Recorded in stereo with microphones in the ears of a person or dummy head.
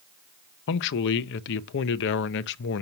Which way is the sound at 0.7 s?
65° left (ahead or behind).